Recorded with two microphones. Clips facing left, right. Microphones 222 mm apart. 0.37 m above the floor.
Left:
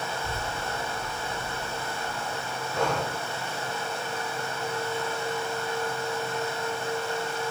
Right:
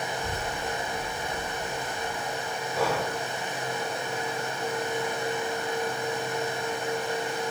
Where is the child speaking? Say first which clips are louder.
Right 1 dB; 60° right (ahead or behind), 6.5 m; by 2.5 s 50° right (ahead or behind), 6.5 m.